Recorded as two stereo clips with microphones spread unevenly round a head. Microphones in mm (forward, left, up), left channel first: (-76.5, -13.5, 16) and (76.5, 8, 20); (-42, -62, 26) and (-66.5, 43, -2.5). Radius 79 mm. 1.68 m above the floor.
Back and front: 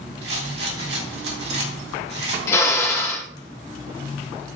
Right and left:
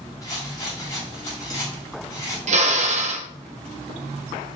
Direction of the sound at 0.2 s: 10° right.